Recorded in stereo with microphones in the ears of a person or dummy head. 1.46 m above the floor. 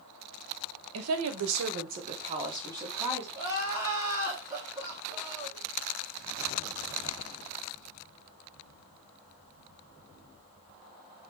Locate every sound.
0.9 s a woman speaking: 80° right, 0.6 m; by 3.2 s 10° right (ahead or behind), 1.2 m
3.4 s crying: 15° right (ahead or behind), 1.0 m